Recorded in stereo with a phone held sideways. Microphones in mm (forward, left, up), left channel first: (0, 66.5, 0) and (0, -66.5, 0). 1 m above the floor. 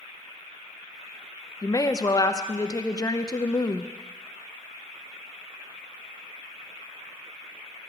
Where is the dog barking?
I don't hear a dog barking.